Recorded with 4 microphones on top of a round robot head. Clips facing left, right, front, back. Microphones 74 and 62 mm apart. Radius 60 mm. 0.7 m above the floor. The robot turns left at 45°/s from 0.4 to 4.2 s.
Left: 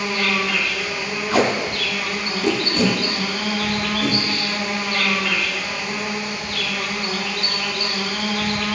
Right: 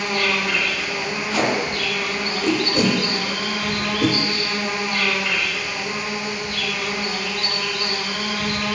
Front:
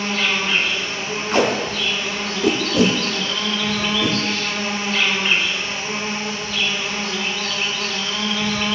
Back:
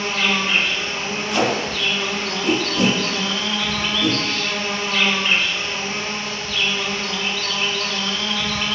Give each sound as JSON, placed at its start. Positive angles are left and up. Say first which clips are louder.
{"t": 0.0, "sound": "an insect", "louder": "even, even", "azimuth_deg": -120, "distance_m": 1.0}
{"t": 1.3, "sound": "tape being pulled", "louder": "left 3 dB, front 2 dB", "azimuth_deg": 55, "distance_m": 0.7}